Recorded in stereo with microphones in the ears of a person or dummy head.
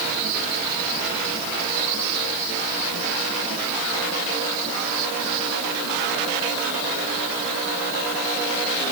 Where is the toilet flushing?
No toilet flushing in this recording.